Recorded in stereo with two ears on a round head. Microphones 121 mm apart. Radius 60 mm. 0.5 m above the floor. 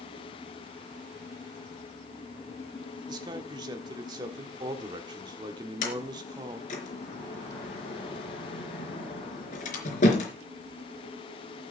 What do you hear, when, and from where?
3.1 s a man speaking: 30° right (ahead or behind), 1.4 m
5.8 s a sliding door: 60° left (ahead or behind), 4 m